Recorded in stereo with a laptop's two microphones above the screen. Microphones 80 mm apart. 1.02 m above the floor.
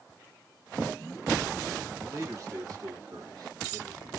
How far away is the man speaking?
About 1.5 m.